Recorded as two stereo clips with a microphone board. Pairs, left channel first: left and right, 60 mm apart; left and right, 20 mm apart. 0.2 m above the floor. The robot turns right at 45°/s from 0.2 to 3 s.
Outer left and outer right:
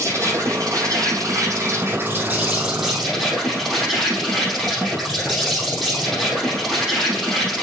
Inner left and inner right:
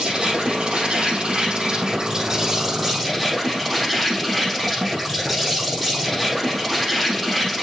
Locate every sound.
0.0 s an insect: 120° right, 5 m; by 7.6 s 5° left, 5 m